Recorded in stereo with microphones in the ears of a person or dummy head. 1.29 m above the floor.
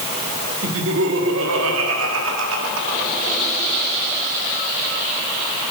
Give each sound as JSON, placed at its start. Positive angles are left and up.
{"t": 0.6, "sound": "laughter", "side_deg": -75, "distance_m": 3.5}